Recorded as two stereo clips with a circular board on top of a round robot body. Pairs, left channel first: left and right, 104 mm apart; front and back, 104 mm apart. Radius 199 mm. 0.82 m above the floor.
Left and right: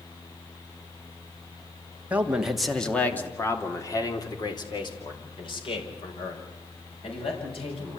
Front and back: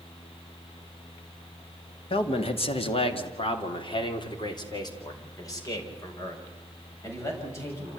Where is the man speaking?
15° right, 2.5 m; by 8.0 s 65° left, 8.5 m.